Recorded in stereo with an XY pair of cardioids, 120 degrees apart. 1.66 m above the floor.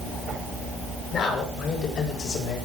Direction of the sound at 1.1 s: 55° left.